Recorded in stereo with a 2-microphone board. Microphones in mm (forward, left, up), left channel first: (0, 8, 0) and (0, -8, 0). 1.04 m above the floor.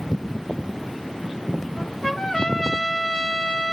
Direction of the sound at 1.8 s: 50° left (ahead or behind).